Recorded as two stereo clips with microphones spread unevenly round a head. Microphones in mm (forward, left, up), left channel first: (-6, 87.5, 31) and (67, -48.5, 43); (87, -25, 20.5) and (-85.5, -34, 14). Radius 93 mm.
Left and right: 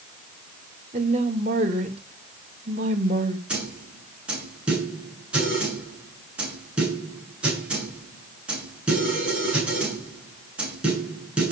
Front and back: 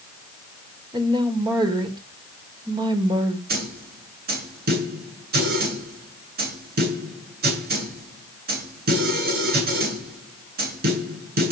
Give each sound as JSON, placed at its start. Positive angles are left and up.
{"t": 0.9, "sound": "a woman speaking", "azimuth_deg": -110, "distance_m": 4.0}
{"t": 3.5, "sound": "a snare drum", "azimuth_deg": -145, "distance_m": 10.0}